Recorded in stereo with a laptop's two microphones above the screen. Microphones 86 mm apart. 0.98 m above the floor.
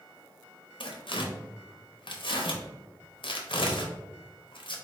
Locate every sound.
0.8 s tearing paper: 80° left, 0.8 m